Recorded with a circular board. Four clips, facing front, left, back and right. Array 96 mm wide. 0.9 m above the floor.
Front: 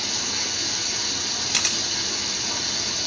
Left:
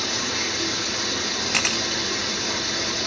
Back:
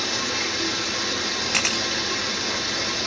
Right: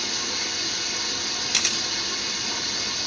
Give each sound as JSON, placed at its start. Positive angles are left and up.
{"t": 0.0, "sound": "running water", "azimuth_deg": 140, "distance_m": 1.4}
{"t": 1.5, "sound": "a camera shutter", "azimuth_deg": 125, "distance_m": 0.7}